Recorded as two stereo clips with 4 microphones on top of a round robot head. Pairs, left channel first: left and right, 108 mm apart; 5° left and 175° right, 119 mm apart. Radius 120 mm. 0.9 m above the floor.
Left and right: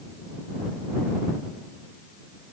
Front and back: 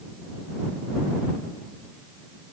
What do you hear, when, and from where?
Only background noise.